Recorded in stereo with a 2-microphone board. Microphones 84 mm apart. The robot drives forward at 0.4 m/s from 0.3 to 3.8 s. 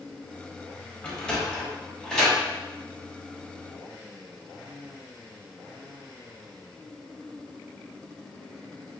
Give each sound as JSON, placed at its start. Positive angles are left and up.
{"t": 1.0, "sound": "a sliding door", "side_deg": 10, "distance_m": 0.6}